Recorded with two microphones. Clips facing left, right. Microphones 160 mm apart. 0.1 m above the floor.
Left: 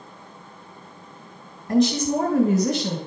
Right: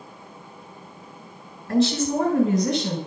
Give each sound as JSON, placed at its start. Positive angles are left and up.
{"t": 1.7, "sound": "a woman speaking", "side_deg": 20, "distance_m": 1.5}